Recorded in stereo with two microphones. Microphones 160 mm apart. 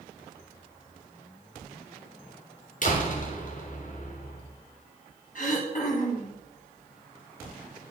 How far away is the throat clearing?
About 4 m.